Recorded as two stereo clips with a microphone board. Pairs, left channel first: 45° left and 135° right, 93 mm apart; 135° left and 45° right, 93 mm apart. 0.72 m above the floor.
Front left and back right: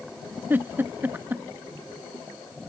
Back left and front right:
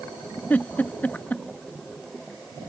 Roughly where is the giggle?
Behind.